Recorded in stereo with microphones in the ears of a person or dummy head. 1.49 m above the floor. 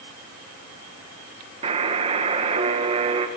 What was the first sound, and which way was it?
A buzzer, 30° right (ahead or behind).